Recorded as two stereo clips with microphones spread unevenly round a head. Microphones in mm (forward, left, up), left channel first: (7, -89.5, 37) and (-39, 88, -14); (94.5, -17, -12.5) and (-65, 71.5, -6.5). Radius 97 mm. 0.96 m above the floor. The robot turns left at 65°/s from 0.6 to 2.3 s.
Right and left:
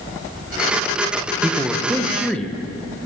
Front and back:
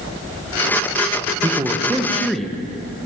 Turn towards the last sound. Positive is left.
turn(degrees=50)